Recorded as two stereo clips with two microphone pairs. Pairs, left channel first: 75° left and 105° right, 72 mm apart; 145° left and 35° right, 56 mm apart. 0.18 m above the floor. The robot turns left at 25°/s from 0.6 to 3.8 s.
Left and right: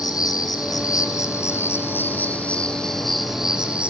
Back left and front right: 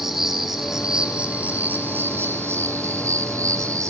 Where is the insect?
50° left, 3 m; by 3.9 s 30° right, 3 m.